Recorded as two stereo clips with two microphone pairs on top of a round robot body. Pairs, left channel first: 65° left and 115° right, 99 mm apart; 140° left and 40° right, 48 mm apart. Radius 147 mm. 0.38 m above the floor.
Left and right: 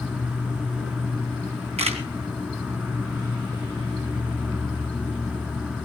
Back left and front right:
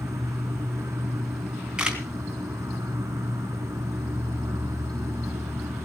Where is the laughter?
No laughter in this recording.